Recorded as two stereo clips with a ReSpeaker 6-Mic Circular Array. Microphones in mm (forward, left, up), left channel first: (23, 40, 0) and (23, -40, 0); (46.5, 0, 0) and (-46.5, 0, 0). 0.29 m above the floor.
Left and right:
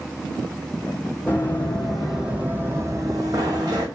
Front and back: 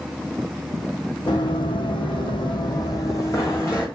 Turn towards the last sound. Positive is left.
turn(degrees=-65)